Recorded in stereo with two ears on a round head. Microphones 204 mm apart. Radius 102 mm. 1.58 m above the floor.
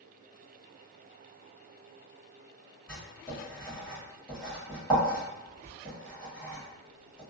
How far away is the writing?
About 1.7 m.